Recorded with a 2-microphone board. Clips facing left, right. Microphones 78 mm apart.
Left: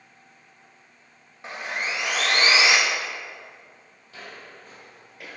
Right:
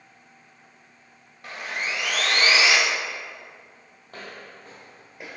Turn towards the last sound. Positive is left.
turn(degrees=-15)  # may be behind; listen again after turning